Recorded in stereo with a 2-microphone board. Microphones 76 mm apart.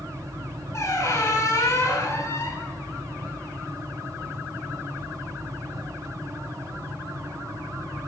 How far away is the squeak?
About 1.8 m.